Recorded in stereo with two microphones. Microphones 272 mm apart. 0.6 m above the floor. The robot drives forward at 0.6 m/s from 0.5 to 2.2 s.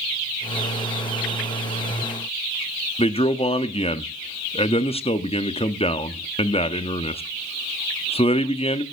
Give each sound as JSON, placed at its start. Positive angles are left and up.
{"t": 3.0, "sound": "a man speaking", "side_deg": 20, "distance_m": 0.6}